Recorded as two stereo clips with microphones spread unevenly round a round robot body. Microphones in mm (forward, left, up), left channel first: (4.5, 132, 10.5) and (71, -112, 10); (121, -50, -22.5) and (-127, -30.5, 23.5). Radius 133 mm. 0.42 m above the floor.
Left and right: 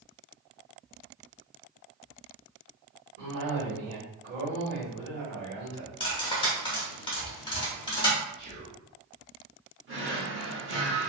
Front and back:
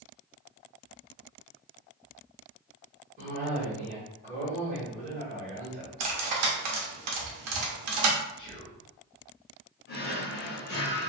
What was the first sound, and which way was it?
A cough, 120° right.